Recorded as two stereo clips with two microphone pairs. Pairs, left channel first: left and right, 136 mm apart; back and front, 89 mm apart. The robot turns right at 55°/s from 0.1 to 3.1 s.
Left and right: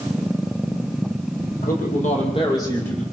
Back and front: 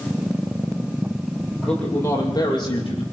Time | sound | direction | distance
1.6 | a man speaking | 95° left | 7.5 m